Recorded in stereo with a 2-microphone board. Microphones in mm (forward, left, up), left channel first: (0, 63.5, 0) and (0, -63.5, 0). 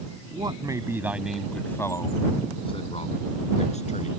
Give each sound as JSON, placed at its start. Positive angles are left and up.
{"t": 0.3, "sound": "a man speaking", "side_deg": -40}